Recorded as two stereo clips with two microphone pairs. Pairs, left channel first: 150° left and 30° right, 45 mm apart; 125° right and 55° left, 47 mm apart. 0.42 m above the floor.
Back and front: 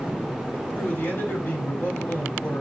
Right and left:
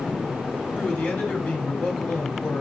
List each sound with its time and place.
0.8 s a man speaking: straight behind, 3 m